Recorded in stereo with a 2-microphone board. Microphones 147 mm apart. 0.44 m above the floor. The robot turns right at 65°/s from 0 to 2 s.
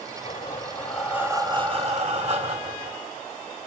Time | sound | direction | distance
0.2 | breathing | 135° left | 2.5 m